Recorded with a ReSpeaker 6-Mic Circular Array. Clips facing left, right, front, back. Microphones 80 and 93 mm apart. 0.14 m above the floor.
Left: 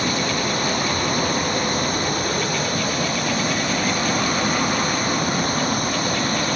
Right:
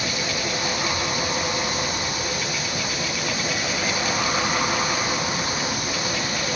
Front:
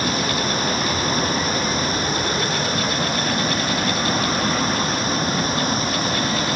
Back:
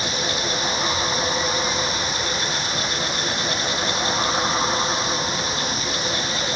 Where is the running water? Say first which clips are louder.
Left 5 dB, front 4 dB; 45° left.